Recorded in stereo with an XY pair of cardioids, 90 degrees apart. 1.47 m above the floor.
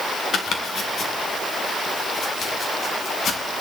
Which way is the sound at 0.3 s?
60° left.